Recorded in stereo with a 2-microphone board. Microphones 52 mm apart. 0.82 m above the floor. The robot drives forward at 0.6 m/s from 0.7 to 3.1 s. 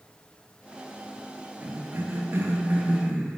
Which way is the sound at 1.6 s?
35° right (ahead or behind).